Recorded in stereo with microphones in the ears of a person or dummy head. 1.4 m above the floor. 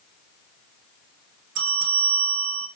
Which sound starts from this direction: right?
A bell, at 1.6 s.